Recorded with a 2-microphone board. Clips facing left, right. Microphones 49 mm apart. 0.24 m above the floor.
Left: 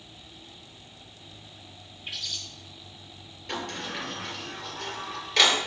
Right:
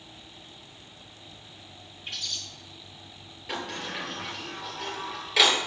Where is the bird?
5° left (ahead or behind), 1.7 m.